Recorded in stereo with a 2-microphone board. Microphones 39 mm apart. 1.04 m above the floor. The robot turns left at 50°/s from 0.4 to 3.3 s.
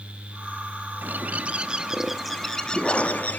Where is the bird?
120° right, 0.7 m; by 3.4 s 125° left, 0.7 m.